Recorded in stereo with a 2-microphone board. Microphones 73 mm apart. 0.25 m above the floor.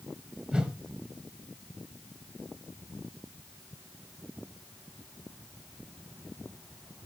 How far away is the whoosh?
About 1.6 m.